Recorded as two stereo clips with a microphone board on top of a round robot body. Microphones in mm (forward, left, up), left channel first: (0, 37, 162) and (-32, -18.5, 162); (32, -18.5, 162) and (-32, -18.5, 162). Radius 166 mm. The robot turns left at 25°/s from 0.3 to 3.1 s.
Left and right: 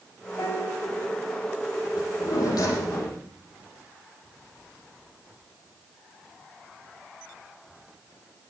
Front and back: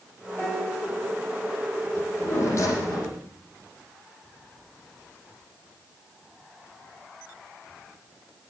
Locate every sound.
0.4 s a piano: 80° left, 5 m; by 0.9 s 65° left, 5 m
2.0 s a drawer: 55° left, 9 m; by 3.2 s 30° left, 9 m